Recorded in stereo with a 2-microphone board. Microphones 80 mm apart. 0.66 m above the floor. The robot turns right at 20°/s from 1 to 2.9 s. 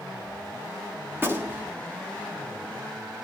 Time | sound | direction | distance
1.1 | a gunshot | 30° right (ahead or behind) | 1.2 m